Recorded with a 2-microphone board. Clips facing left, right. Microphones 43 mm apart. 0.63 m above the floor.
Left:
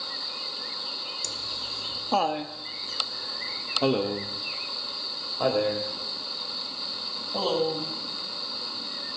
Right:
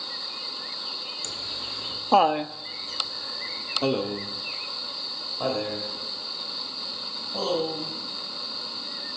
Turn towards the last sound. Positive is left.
turn(degrees=20)  # may be behind; listen again after turning